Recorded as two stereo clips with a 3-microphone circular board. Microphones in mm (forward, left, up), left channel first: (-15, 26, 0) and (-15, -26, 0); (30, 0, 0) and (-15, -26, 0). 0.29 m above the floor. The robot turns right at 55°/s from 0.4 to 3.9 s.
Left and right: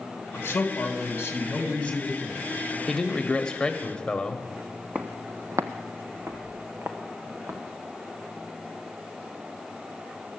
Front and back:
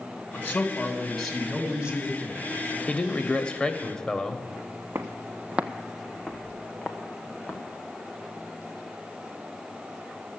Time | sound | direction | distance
0.3 | a man speaking | 75° left | 2 m
2.9 | a man speaking | 25° left | 0.9 m
5.0 | footsteps | 150° right | 0.8 m